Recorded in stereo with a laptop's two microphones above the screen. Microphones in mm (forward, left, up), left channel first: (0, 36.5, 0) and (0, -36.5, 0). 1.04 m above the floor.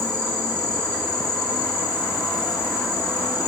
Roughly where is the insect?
Left.